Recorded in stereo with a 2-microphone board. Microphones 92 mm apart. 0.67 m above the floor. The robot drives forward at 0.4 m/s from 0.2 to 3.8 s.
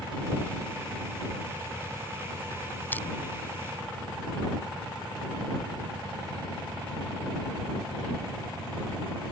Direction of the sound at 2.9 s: 20° left (ahead or behind).